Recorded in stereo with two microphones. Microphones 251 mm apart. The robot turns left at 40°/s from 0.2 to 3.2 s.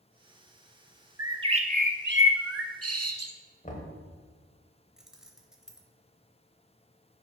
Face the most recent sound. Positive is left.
turn(degrees=0)  # may be behind; listen again after turning